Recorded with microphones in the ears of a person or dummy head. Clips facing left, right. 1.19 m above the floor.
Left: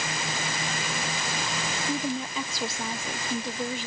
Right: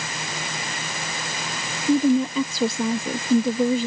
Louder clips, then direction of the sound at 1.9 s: Right 14 dB; 70° right (ahead or behind).